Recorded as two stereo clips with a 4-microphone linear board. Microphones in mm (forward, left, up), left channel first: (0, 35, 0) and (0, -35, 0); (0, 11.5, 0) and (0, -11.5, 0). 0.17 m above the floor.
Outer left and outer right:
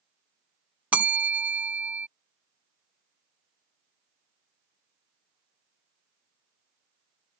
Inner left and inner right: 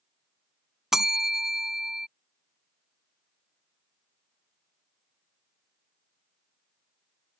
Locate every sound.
0.9 s a bell: 20° right (ahead or behind)